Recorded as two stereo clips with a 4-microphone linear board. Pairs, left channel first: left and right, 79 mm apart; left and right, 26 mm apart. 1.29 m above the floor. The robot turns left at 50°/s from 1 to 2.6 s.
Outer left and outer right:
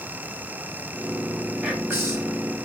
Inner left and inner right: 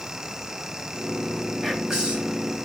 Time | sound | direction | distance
1.6 | whispering | 15° right | 2 m